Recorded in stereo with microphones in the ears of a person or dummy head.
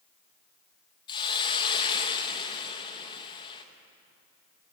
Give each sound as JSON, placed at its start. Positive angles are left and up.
{"t": 1.1, "sound": "a hiss", "side_deg": 25, "distance_m": 1.5}